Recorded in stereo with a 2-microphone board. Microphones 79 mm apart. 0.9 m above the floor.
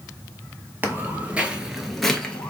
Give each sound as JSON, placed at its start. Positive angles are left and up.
{"t": 0.8, "sound": "footsteps", "side_deg": -25, "distance_m": 1.1}